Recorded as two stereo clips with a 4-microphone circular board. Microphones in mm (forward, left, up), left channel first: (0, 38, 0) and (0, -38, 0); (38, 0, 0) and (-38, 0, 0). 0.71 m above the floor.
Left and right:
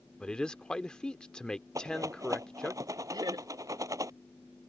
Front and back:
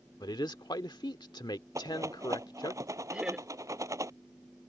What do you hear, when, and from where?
0.2 s a man speaking: 10° left
1.8 s a rattle: 135° right
3.1 s laughter: 105° right